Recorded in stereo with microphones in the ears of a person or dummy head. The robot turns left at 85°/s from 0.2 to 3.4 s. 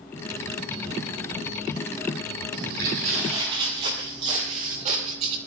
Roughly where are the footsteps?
Right.